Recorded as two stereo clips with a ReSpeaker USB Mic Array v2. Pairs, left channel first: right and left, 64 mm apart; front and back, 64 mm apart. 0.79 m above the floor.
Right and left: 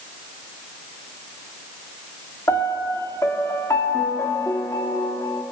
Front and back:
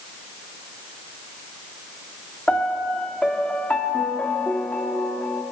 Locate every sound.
2.5 s a piano: 70° right, 2 m